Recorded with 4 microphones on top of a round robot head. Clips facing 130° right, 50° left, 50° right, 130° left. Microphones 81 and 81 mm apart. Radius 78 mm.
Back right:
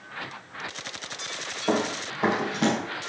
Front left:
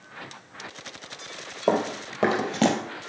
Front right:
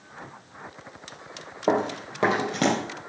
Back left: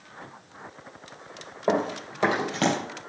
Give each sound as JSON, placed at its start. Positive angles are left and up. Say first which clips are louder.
{"t": 1.7, "sound": "running footsteps", "louder": "front left 2 dB, front right 1 dB", "azimuth_deg": 15, "distance_m": 3.0}